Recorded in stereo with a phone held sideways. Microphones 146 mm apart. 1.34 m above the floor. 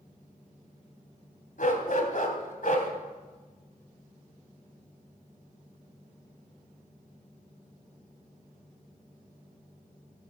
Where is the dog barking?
65° left (ahead or behind), 2.5 m.